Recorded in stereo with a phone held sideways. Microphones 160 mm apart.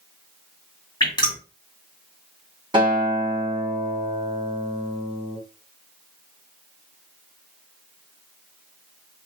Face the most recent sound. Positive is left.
turn(degrees=-30)  # may be behind; listen again after turning